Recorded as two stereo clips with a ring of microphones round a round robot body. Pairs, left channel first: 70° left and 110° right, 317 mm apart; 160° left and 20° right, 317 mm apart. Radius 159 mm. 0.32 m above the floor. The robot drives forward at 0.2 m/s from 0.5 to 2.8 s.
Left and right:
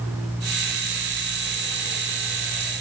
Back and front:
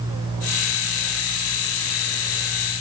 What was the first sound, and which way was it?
Only background noise.